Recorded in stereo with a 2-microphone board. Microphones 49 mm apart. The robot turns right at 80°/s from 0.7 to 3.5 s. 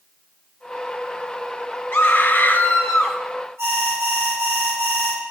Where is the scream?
85° left, 1.8 m; by 3.2 s 170° right, 1.8 m.